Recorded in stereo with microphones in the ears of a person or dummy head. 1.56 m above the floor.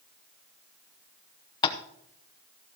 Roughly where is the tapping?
Left.